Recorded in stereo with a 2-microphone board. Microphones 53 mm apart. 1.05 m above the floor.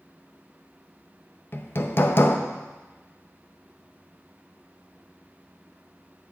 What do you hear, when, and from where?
1.5 s hammering: 45° left (ahead or behind), 0.7 m